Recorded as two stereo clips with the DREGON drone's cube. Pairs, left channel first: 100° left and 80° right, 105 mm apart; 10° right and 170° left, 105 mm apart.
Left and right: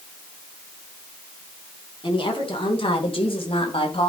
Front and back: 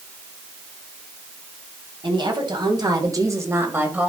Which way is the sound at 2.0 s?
130° left.